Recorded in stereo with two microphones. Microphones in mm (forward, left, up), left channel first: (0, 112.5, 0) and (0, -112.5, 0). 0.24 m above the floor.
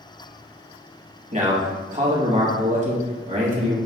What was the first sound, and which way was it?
A man speaking, 35° right (ahead or behind).